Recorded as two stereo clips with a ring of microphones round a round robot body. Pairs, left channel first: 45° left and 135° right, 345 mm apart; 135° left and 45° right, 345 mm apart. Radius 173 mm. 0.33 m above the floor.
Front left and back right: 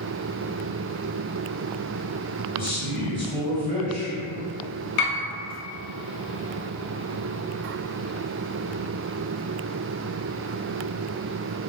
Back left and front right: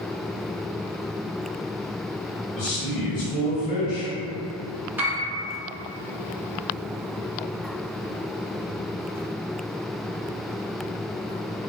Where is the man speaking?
150° left, 1.6 m.